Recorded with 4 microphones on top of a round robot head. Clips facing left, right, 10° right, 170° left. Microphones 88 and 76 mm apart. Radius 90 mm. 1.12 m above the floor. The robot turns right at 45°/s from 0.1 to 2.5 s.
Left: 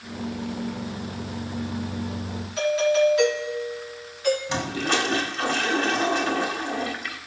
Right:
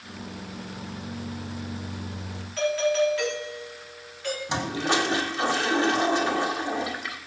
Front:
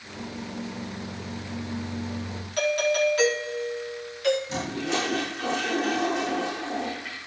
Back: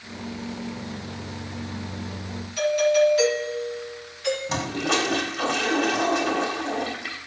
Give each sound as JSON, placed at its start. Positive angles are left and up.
{"t": 2.6, "sound": "a doorbell", "azimuth_deg": 15, "distance_m": 4.0}
{"t": 4.5, "sound": "a toilet flushing", "azimuth_deg": -155, "distance_m": 1.9}